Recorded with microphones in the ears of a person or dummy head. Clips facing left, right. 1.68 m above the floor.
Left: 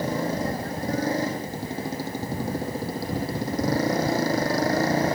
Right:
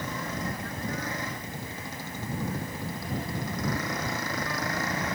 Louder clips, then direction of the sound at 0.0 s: Left 8 dB; 30° left (ahead or behind).